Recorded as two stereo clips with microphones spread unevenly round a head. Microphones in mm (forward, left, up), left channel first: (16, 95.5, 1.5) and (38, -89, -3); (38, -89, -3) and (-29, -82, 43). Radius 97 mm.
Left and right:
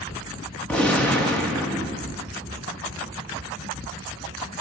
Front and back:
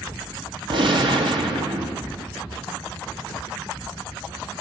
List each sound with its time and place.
0.7 s a gunshot: straight behind, 1.2 m